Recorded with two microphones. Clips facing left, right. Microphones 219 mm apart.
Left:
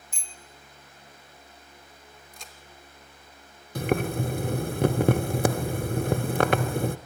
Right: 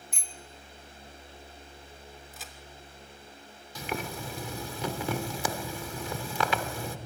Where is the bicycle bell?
65° right (ahead or behind), 2.5 m.